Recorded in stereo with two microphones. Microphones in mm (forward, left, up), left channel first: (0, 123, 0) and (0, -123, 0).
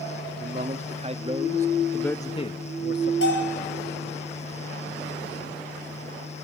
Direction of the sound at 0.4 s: 35° right (ahead or behind).